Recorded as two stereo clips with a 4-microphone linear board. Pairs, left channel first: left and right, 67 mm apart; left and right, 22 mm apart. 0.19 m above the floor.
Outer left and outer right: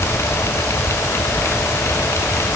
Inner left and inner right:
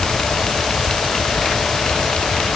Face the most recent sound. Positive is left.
No sound to turn to.